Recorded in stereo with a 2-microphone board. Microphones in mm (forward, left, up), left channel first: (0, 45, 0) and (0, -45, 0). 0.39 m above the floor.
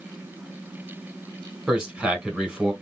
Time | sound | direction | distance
1.7 | a man speaking | 10° right (ahead or behind) | 1.9 m